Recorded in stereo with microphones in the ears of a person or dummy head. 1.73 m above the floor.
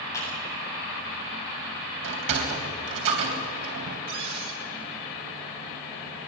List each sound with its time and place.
0.1 s a clap: 15° left (ahead or behind), 9.5 m
2.0 s a sliding door: 65° right (ahead or behind), 3.5 m
4.1 s a cupboard door: 75° right (ahead or behind), 3.5 m